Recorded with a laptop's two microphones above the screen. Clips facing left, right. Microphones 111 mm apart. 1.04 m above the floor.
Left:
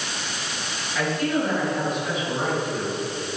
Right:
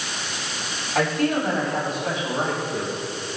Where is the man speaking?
45° right (ahead or behind), 5.5 m; by 3.0 s 35° right (ahead or behind), 5.5 m.